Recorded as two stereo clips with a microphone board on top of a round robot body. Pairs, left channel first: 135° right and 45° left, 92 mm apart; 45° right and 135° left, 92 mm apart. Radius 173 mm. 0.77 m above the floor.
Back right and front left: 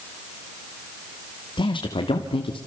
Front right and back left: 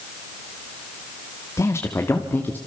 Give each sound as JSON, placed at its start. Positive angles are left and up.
{"t": 1.6, "sound": "a man speaking", "azimuth_deg": -105, "distance_m": 1.9}